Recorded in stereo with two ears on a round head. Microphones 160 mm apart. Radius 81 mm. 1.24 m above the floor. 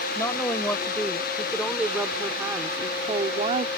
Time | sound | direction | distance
0.1 | a woman speaking | 15° left (ahead or behind) | ?